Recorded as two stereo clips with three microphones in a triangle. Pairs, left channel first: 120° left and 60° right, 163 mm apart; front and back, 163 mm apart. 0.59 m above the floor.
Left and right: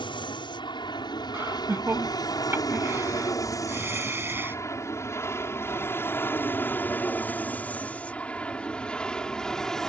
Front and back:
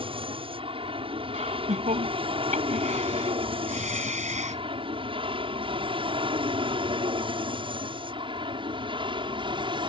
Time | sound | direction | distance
0.0 | an aircraft | 155° left | ?
1.3 | laughter | 135° right | ?